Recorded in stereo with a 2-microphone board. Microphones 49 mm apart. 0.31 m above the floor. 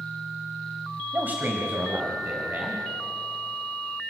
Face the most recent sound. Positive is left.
turn(degrees=-40)  # may be behind; listen again after turning